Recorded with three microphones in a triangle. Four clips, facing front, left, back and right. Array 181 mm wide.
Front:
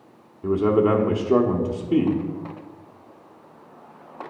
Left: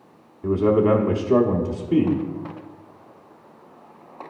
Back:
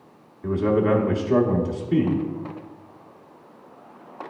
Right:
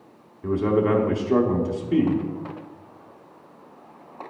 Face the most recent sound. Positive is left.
turn(degrees=30)